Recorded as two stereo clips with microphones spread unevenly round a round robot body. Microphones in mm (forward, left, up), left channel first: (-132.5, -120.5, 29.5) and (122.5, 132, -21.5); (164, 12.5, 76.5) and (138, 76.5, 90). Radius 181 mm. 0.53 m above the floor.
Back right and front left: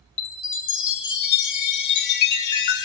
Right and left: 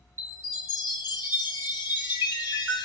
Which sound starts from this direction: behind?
A chime, at 0.2 s.